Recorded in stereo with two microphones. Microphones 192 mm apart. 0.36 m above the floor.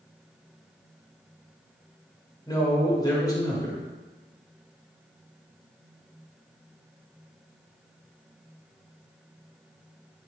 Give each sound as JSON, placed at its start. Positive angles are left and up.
{"t": 2.5, "sound": "a man speaking", "side_deg": 20, "distance_m": 1.3}